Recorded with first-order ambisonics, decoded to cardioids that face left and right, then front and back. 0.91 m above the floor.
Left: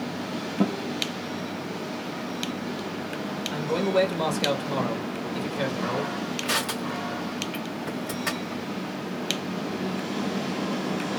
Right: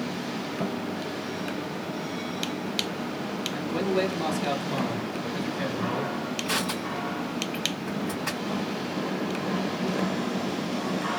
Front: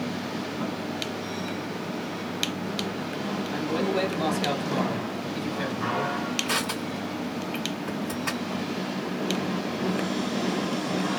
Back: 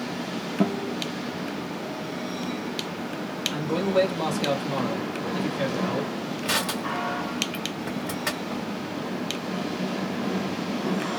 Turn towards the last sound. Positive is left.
turn(degrees=150)